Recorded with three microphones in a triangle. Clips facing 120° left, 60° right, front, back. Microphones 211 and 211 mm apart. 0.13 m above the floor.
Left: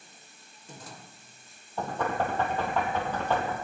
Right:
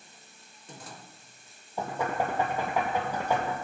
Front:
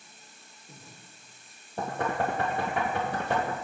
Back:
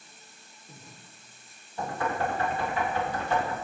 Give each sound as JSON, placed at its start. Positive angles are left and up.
{"t": 1.8, "sound": "knocking", "azimuth_deg": 15, "distance_m": 2.5}